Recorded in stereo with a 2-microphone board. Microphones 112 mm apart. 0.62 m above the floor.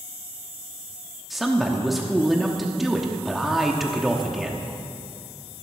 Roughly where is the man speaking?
Centre.